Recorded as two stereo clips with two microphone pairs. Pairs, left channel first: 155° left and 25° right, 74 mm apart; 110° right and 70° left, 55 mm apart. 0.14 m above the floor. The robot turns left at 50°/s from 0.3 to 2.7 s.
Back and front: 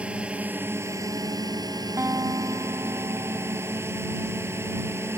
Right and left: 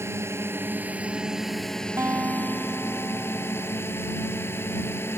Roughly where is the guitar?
Ahead left.